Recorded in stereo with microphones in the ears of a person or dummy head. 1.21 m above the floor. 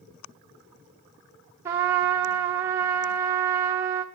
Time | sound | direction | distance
1.6 | a trumpet | 10° right (ahead or behind) | 0.5 m